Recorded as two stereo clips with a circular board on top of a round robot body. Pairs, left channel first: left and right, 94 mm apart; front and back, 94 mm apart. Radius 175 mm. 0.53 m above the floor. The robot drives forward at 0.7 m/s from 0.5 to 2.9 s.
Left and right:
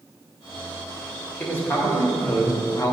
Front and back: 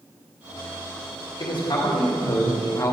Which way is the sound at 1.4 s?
25° left.